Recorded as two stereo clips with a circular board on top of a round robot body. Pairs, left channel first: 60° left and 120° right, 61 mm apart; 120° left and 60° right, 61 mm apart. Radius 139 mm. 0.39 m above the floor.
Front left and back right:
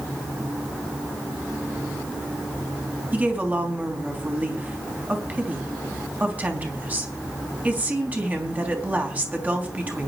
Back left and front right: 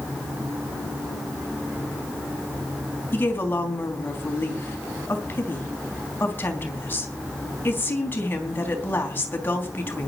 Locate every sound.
3.1 s a woman speaking: 175° left, 4 m